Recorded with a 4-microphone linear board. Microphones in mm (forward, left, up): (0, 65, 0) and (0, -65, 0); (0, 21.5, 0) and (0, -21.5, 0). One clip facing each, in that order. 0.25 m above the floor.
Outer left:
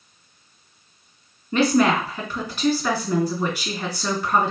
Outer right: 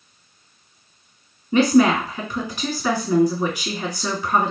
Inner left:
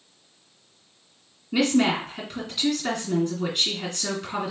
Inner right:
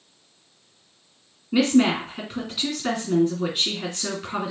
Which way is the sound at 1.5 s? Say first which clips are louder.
Outer right 3 dB, inner right 2 dB; 5° right (ahead or behind).